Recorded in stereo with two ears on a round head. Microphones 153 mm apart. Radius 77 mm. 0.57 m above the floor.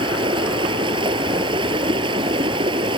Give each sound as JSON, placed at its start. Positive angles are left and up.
{"t": 0.0, "sound": "running water", "side_deg": -30}